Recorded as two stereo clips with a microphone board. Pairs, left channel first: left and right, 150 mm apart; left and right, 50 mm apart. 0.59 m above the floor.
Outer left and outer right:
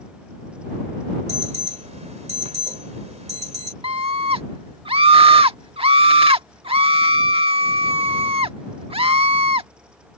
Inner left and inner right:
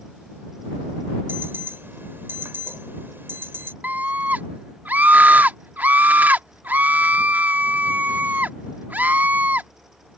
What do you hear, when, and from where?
1.3 s an alarm: 50° right (ahead or behind)
3.8 s a scream: 40° right (ahead or behind)